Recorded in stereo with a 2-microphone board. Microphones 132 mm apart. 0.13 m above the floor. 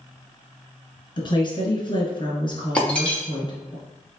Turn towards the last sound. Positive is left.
turn(degrees=10)  # may be behind; listen again after turning